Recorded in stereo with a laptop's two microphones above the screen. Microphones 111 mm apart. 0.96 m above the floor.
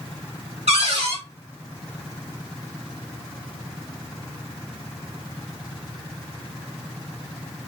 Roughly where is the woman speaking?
No woman speaking in this recording.